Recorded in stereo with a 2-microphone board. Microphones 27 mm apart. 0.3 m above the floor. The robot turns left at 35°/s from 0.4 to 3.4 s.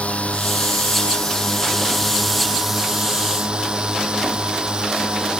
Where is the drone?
65° left; by 5.4 s 40° right.